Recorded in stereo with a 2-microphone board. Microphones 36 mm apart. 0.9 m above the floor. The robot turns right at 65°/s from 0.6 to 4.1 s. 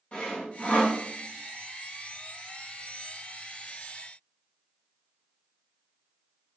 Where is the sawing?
35° left (ahead or behind), 0.9 m; by 1.0 s 55° left (ahead or behind), 0.9 m.